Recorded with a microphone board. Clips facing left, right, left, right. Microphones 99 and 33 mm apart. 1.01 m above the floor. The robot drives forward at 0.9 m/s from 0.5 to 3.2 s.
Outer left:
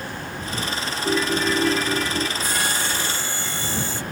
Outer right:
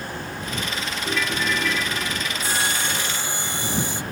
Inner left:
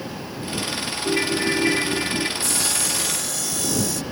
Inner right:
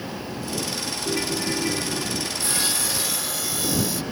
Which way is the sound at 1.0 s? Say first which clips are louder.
Outer left 5 dB, inner left 5 dB; 30° left (ahead or behind).